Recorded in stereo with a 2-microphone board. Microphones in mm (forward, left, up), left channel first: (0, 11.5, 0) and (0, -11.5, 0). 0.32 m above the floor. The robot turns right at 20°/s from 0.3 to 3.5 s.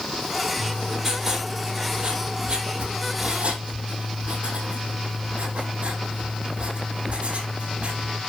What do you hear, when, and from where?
0.6 s writing: 175° right, 6 m; by 8.2 s 115° right, 6 m